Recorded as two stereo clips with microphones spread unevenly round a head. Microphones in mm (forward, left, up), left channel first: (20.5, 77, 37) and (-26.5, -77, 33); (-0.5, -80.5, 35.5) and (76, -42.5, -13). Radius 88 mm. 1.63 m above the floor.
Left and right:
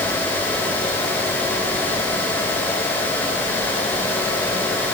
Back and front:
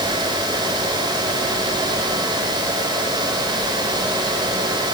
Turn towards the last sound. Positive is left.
No sound to turn to.